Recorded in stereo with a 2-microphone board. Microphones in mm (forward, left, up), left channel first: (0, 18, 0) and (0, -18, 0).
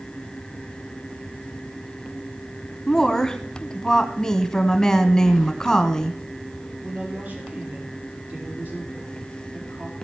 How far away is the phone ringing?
No phone ringing in this recording.